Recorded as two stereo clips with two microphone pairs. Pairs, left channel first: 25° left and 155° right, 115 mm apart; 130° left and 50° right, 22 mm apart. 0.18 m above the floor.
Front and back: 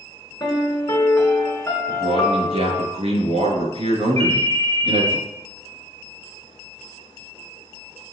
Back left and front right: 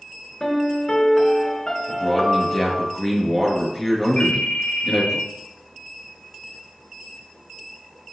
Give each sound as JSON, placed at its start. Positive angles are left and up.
{"t": 0.4, "sound": "a piano", "azimuth_deg": 75, "distance_m": 2.0}
{"t": 1.9, "sound": "a man speaking", "azimuth_deg": -165, "distance_m": 3.5}
{"t": 4.2, "sound": "a ringtone", "azimuth_deg": 175, "distance_m": 2.0}